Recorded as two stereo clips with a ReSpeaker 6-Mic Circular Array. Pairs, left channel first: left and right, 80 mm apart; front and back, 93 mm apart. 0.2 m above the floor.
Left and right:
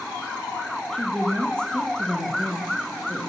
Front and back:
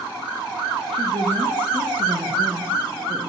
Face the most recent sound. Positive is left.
turn(degrees=170)